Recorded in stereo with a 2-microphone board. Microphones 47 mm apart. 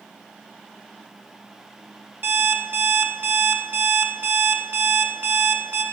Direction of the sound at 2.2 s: 50° right (ahead or behind).